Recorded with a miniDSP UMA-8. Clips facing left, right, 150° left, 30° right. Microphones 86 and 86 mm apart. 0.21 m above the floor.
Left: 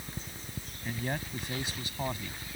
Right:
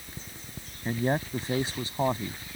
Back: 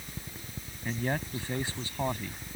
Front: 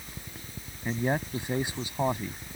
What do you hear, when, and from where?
0.8 s a man speaking: 90° right